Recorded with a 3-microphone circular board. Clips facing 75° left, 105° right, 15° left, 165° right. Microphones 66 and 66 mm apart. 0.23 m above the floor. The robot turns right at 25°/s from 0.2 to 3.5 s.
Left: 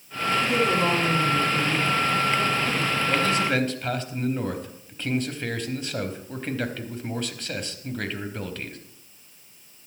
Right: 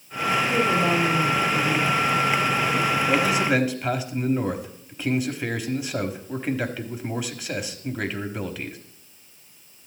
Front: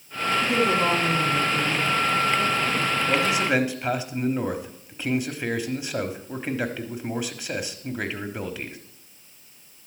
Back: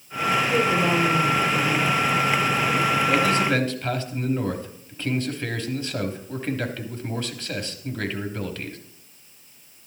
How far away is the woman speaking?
About 6 m.